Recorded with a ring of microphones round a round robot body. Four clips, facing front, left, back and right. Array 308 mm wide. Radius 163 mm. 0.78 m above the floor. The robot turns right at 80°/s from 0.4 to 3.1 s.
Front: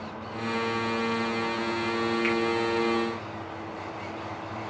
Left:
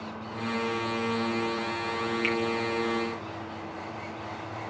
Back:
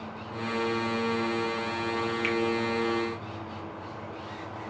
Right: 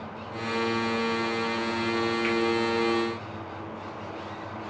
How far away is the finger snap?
About 1.8 m.